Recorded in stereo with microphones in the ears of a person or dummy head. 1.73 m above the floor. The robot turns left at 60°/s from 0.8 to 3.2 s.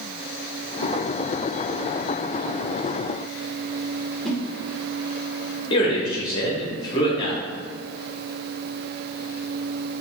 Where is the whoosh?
Centre (ahead or behind), 1.0 m.